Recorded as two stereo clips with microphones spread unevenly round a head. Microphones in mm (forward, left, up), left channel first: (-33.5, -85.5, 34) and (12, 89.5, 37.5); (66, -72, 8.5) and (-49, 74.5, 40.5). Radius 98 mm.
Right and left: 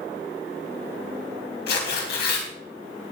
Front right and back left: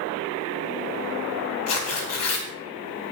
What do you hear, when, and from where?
1.7 s tearing paper: 60° right, 3.5 m